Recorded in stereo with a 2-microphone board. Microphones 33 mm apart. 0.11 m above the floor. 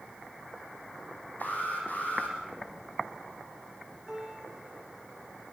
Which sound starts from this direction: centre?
A piano, at 4.1 s.